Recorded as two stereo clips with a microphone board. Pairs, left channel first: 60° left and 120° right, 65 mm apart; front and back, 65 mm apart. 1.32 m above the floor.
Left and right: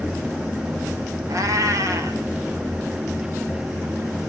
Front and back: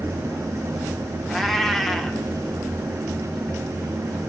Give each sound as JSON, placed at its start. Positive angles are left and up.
{"t": 1.3, "sound": "a cat meowing", "azimuth_deg": -90, "distance_m": 1.9}